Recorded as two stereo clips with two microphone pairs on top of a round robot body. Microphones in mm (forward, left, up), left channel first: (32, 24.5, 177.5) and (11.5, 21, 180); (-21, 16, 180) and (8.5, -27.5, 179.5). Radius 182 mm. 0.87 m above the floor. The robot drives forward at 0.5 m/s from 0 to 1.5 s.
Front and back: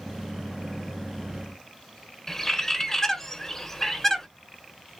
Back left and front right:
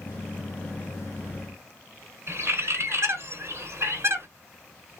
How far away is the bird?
About 1.3 m.